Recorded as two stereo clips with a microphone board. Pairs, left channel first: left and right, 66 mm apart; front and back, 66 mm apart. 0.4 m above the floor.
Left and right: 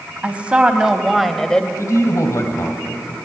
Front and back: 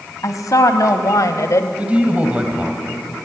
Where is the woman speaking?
25° right, 2.5 m; by 1.7 s 20° left, 1.4 m.